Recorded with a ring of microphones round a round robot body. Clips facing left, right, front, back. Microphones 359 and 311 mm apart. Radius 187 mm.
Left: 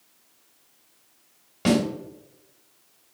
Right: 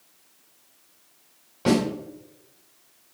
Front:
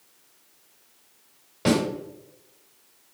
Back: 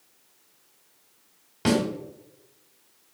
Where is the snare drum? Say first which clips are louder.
Even, front 1 dB; 125° left, 1.7 m.